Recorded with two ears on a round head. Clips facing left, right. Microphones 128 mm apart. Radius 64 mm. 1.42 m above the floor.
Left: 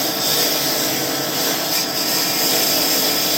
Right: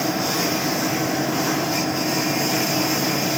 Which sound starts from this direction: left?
A lawn mower, at 0.0 s.